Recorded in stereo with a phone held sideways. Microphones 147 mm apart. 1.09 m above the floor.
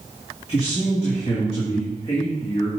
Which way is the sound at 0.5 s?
45° left (ahead or behind).